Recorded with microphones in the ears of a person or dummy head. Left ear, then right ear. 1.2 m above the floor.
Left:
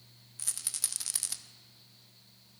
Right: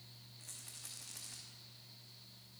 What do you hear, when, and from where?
0.4 s a rattle: 70° left (ahead or behind), 1.0 m